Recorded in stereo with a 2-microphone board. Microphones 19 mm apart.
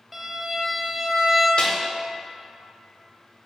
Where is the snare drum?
45° left (ahead or behind), 0.5 m.